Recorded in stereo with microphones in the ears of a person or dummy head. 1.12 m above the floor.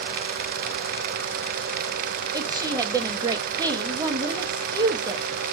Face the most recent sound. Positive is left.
turn(degrees=-15)  # may be behind; listen again after turning